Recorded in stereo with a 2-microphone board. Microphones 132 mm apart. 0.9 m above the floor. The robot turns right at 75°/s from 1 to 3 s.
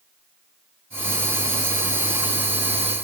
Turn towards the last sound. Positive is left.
No sound to turn to.